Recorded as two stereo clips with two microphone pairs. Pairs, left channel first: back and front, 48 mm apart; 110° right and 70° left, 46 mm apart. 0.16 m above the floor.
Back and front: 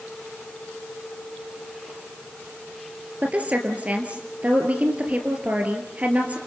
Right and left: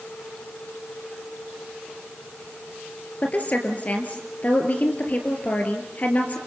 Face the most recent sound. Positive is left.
turn(degrees=-60)